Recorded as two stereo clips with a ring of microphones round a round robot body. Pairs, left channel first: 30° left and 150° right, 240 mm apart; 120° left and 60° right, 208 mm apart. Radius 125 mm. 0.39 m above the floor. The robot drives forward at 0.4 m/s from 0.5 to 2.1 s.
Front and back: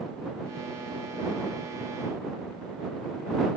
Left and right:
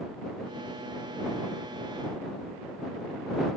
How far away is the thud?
I don't hear a thud.